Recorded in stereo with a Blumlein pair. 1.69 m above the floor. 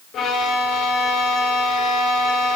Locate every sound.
0.1 s a violin: 25° left, 1.1 m